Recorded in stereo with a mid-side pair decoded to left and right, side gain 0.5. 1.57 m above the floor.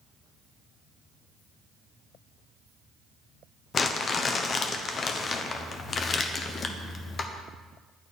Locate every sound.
3.7 s crumpling: 40° left, 0.8 m